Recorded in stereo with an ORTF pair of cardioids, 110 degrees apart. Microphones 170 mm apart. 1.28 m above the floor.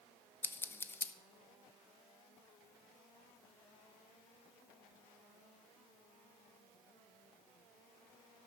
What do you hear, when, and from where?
0.4 s scissors: 15° left, 0.6 m